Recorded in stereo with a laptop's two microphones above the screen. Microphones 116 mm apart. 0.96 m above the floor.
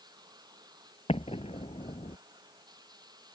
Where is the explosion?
60° left (ahead or behind).